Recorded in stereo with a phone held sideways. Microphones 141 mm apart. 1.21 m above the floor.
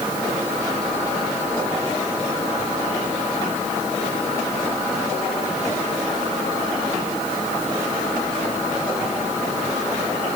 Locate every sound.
Only background noise.